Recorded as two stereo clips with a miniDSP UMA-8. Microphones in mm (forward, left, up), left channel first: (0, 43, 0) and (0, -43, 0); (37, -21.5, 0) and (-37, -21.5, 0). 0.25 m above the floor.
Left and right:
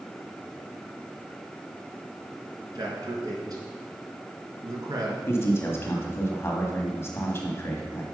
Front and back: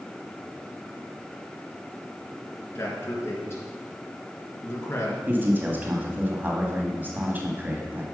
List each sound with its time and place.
2.8 s a man speaking: 55° right, 3 m
5.3 s a man speaking: 130° left, 1.7 m